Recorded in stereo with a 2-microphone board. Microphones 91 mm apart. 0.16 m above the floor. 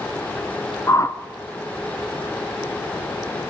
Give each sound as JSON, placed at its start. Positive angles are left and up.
{"t": 0.9, "sound": "a whoosh", "side_deg": 35, "distance_m": 0.8}